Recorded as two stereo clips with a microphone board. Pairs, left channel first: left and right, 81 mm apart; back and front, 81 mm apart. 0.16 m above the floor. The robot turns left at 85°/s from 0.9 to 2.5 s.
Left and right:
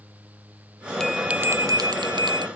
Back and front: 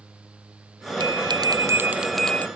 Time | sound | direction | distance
1.0 | a bell | 10° left | ?